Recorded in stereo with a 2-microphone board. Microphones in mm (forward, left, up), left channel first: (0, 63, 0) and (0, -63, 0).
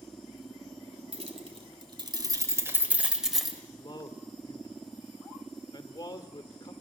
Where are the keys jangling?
55° right (ahead or behind), 2.5 m; by 3.6 s 5° left (ahead or behind), 2 m.